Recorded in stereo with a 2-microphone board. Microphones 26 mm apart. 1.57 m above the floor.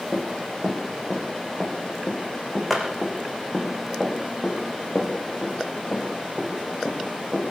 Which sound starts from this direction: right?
Running footsteps, at 0.1 s.